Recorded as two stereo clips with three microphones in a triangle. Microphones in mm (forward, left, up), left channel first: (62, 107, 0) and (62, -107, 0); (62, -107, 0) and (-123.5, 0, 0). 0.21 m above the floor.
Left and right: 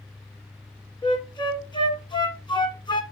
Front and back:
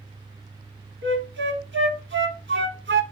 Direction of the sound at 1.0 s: 155° left.